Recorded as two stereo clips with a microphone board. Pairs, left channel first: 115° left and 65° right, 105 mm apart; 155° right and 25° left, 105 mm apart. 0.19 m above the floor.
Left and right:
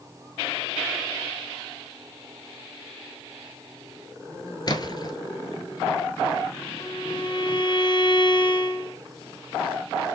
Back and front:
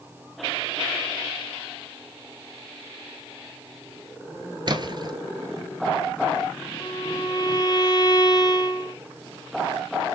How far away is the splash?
About 1.0 m.